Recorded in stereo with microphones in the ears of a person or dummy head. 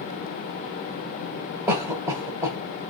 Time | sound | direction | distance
1.7 | a cough | 10° right (ahead or behind) | 1.5 m